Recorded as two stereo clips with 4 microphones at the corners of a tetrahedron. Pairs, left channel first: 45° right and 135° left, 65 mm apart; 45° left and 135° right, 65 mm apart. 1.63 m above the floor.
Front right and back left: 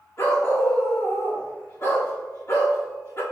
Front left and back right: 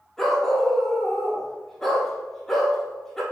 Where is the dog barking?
35° right, 1.5 m.